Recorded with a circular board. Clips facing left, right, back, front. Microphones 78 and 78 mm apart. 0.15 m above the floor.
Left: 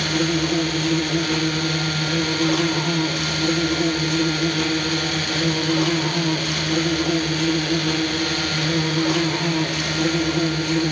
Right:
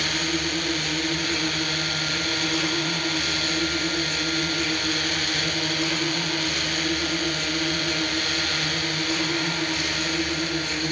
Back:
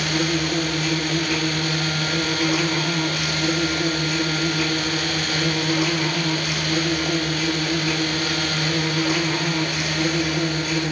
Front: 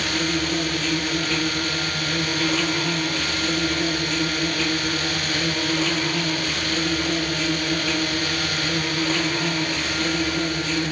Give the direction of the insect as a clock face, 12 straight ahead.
9 o'clock.